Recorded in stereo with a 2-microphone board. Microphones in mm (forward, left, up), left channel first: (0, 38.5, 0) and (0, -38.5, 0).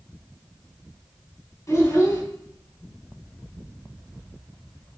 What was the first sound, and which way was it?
A child speaking, 45° left (ahead or behind).